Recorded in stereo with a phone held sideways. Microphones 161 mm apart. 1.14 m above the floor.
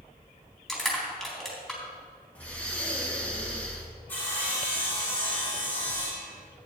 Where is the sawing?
10° left (ahead or behind), 4.5 m.